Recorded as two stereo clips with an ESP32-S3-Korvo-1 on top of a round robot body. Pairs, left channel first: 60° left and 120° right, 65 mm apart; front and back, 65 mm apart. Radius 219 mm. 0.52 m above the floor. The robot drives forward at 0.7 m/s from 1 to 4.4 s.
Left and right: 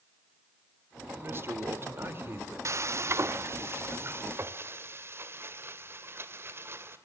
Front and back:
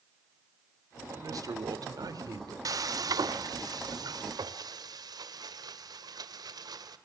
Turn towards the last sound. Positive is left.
turn(degrees=-170)